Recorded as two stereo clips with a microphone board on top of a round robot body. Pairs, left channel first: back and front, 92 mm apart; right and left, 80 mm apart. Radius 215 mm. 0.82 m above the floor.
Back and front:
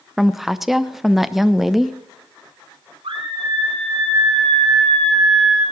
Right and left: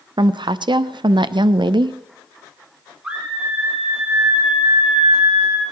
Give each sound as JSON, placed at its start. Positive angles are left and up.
{"t": 0.2, "sound": "a woman speaking", "azimuth_deg": 90, "distance_m": 0.7}
{"t": 3.0, "sound": "a scream", "azimuth_deg": 15, "distance_m": 10.0}